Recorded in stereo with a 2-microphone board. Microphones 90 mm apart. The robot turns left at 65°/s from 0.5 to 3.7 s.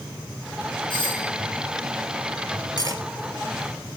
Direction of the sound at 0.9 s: 60° left (ahead or behind).